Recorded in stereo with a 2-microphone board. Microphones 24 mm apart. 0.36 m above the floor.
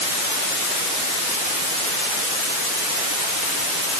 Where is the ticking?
I don't hear ticking.